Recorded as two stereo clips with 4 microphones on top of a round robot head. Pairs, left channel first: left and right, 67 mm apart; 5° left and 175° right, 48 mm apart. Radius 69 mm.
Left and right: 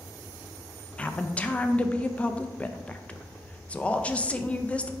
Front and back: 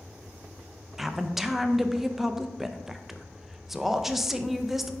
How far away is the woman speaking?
About 0.6 m.